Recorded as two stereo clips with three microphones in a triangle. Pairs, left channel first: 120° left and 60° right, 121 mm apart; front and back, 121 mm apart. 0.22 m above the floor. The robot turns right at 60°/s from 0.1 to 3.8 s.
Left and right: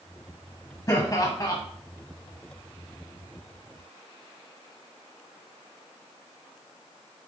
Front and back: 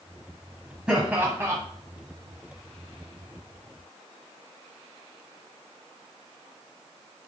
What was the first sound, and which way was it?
Laughter, 105° left.